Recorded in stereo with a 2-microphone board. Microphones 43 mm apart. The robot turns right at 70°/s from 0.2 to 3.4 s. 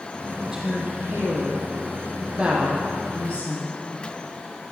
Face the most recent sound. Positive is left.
turn(degrees=35)  # may be behind; listen again after turning